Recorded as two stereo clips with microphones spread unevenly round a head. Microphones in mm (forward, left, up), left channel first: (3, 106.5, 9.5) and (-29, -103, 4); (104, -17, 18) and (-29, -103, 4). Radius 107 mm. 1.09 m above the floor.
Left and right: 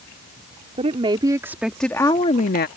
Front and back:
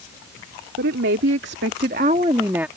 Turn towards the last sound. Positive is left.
turn(degrees=125)